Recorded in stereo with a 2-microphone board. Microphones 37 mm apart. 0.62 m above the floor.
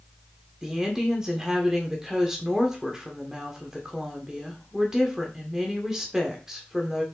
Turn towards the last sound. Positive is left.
turn(degrees=-15)  # may be behind; listen again after turning